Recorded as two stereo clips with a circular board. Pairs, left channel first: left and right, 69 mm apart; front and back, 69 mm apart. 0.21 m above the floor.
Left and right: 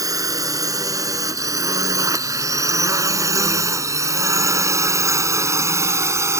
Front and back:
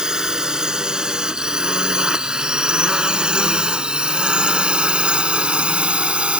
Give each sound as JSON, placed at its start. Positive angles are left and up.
{"t": 0.0, "sound": "a drone", "azimuth_deg": -100}